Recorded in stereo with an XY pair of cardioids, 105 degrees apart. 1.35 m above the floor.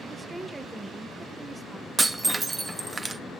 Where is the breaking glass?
25° right, 1.2 m.